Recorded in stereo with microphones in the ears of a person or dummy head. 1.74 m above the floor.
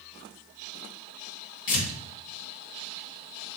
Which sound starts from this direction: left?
Tearing paper, at 1.7 s.